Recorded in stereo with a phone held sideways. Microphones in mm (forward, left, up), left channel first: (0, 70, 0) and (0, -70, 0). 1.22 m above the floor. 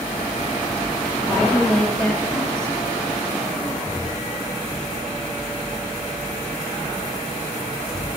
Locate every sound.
1.3 s a woman speaking: 5° left (ahead or behind), 1.5 m